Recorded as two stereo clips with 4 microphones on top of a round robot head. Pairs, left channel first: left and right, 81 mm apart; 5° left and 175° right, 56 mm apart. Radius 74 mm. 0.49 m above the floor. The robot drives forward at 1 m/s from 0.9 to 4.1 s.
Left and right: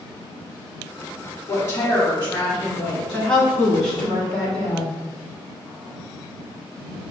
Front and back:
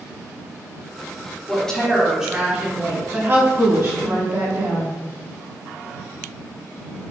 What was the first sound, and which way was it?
A woman speaking, 55° left.